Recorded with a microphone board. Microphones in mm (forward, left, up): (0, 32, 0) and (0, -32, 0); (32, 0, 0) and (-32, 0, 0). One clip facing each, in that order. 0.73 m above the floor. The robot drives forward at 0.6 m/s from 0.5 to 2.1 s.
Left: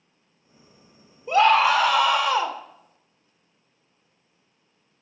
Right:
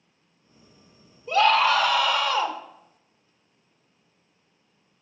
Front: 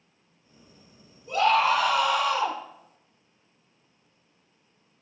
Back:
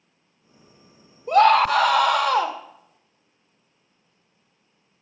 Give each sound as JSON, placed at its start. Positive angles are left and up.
{"t": 1.3, "sound": "a scream", "azimuth_deg": 160, "distance_m": 2.0}